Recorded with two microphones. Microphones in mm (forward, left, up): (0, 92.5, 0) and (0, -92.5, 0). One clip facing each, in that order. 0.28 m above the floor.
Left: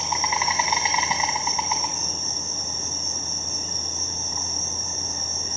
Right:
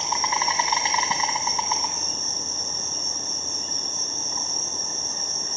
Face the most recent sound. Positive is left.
turn(degrees=15)  # may be behind; listen again after turning